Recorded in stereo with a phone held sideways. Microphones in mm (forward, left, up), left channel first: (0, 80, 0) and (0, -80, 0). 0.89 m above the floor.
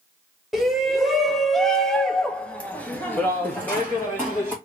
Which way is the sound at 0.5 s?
Centre (ahead or behind).